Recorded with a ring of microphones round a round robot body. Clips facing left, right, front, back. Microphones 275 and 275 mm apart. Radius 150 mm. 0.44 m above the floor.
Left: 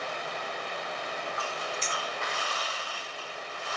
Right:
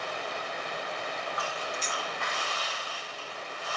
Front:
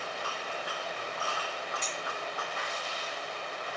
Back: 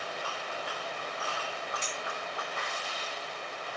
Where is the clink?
125° left, 1.4 m.